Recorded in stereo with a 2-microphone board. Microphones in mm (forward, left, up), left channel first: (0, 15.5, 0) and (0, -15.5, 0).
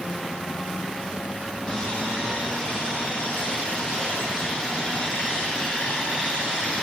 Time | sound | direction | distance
1.7 | sawing | 25° left (ahead or behind) | 9 m